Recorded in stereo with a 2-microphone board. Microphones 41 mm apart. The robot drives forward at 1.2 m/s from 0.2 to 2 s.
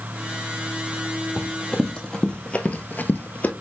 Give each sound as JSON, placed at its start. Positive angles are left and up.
{"t": 1.4, "sound": "running footsteps", "side_deg": 10, "distance_m": 0.9}